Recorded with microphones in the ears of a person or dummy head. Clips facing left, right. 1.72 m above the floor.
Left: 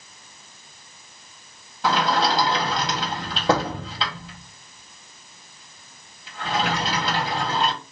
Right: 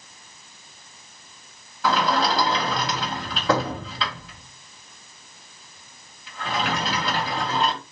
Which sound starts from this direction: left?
A sliding door, at 1.8 s.